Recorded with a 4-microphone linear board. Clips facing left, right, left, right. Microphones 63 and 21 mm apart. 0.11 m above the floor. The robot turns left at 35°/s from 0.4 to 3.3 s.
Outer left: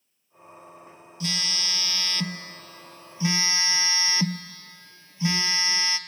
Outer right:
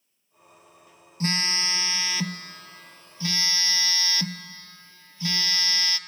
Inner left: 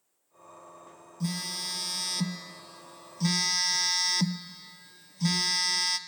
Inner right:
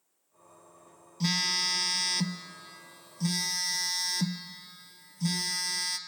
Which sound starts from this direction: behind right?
A phone buzzing, at 1.2 s.